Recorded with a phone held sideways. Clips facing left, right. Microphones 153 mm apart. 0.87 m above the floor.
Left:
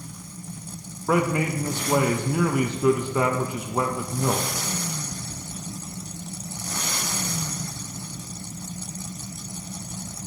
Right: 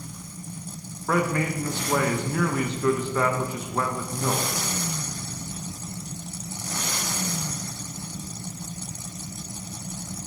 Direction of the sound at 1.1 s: 15° left (ahead or behind).